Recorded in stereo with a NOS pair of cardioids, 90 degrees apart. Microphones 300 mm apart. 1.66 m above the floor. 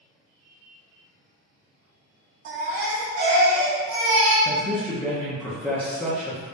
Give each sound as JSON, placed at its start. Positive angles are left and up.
{"t": 2.5, "sound": "a baby crying", "azimuth_deg": -70, "distance_m": 1.9}
{"t": 4.5, "sound": "a man speaking", "azimuth_deg": 5, "distance_m": 1.0}